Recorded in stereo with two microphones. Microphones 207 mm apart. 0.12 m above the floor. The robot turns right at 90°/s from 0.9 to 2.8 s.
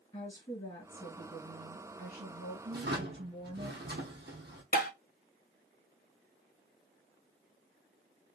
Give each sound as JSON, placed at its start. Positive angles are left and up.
{"t": 0.1, "sound": "a woman speaking", "azimuth_deg": 145, "distance_m": 1.9}
{"t": 2.7, "sound": "a drawer", "side_deg": -45, "distance_m": 1.0}
{"t": 4.7, "sound": "tapping", "side_deg": 45, "distance_m": 0.5}